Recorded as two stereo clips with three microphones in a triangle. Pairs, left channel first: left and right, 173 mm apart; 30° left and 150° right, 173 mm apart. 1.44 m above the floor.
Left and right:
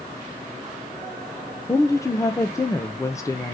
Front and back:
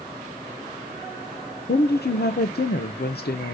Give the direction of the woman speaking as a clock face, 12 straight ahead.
11 o'clock.